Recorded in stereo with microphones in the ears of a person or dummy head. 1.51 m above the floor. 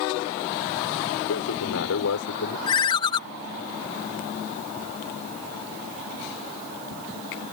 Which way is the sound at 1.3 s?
80° left.